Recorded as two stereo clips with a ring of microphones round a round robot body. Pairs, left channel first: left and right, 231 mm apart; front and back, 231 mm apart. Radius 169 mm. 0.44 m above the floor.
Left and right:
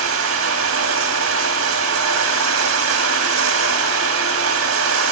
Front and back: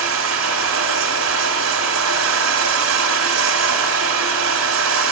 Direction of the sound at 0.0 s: 135° right.